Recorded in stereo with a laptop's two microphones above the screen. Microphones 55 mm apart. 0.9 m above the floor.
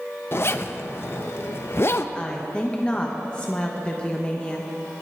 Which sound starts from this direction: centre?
A woman speaking, at 2.1 s.